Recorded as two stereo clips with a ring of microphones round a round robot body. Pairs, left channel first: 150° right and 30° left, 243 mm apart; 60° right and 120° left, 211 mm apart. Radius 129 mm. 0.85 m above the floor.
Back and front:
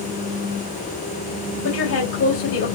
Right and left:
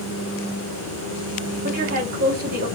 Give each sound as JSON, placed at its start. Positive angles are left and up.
{"t": 1.6, "sound": "a woman speaking", "azimuth_deg": 175, "distance_m": 3.5}